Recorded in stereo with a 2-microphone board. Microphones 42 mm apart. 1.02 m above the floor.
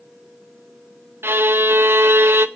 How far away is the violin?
About 0.8 m.